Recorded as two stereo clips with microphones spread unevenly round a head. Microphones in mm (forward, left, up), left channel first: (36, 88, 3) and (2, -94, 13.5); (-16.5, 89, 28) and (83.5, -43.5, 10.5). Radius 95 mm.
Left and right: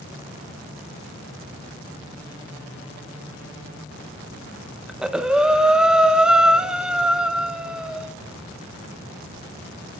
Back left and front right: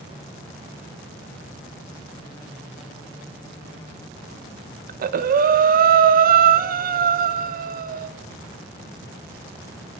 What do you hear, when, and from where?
4.9 s breathing: 15° right, 0.5 m